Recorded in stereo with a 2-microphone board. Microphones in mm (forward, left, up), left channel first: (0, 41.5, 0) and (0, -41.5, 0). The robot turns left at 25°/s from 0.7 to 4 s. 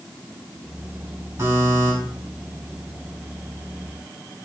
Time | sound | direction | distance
1.4 | a buzzer | 40° right (ahead or behind) | 2.5 m